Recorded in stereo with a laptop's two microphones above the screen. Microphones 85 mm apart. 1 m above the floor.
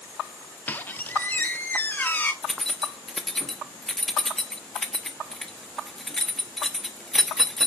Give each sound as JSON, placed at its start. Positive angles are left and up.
{"t": 0.7, "sound": "a squeak", "side_deg": 20, "distance_m": 0.9}
{"t": 2.4, "sound": "keys jangling", "side_deg": 5, "distance_m": 1.1}